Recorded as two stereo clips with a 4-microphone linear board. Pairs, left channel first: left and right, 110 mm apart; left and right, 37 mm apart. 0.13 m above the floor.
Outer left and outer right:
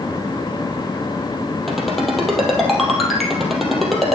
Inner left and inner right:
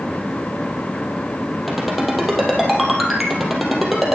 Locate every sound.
1.7 s a ringtone: centre (ahead or behind), 2.5 m